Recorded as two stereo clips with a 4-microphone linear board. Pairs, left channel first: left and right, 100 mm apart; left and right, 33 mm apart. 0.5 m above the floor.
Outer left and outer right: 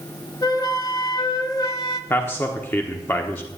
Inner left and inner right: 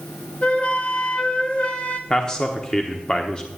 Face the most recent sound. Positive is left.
turn(degrees=20)  # may be behind; listen again after turning